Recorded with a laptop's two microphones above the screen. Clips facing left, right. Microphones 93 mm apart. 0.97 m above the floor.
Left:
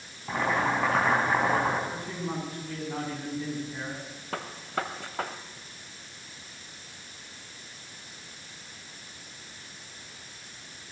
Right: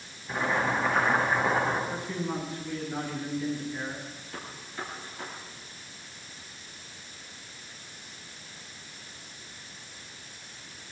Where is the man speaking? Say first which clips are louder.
Right 2 dB; 45° left (ahead or behind), 10 m.